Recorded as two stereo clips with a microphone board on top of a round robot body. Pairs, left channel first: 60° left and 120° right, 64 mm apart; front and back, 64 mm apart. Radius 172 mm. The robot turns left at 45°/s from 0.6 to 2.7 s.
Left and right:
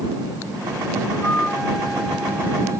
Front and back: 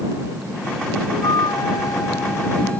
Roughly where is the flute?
Ahead.